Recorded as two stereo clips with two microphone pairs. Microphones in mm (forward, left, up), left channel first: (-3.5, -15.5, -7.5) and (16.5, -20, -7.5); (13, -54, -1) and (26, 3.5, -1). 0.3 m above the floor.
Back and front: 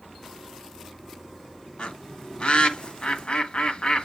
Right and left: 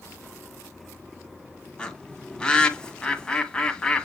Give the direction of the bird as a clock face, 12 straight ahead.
6 o'clock.